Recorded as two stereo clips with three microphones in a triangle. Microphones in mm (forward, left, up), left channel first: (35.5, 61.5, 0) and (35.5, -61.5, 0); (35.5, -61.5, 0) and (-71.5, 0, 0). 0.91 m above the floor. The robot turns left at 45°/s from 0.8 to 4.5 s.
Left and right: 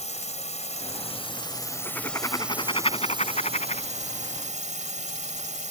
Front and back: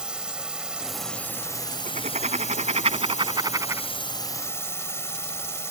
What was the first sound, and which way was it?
A drone, 65° left.